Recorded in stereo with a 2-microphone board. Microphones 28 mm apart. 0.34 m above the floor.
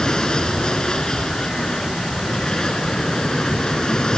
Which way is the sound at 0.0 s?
30° left (ahead or behind).